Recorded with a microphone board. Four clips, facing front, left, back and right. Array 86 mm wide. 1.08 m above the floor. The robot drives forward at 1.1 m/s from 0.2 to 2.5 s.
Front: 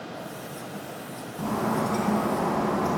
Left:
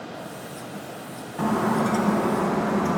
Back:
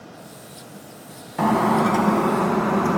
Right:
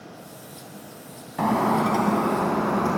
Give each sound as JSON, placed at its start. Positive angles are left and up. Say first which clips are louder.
{"t": 1.4, "sound": "breaking glass", "louder": "right 2 dB, back 8 dB", "azimuth_deg": -155, "distance_m": 3.0}